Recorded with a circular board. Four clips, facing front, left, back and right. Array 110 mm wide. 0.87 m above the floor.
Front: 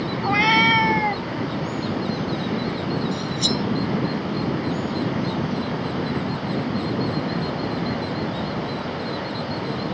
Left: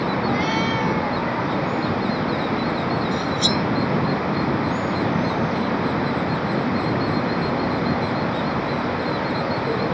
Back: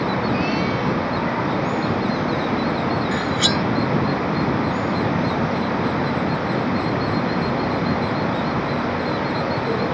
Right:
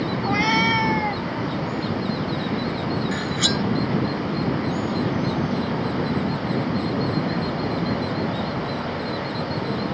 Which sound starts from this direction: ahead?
A cat meowing, at 0.2 s.